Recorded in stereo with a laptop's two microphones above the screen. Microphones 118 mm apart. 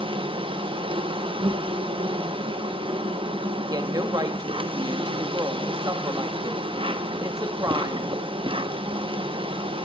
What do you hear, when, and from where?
0.0 s an insect: 50° right (ahead or behind), 1.0 m
3.7 s a woman speaking: 35° right (ahead or behind), 1.5 m